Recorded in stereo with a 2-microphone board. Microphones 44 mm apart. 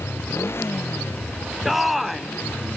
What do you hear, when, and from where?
0.0 s a motorcycle: 65° left (ahead or behind)
1.6 s a shout: 5° right (ahead or behind)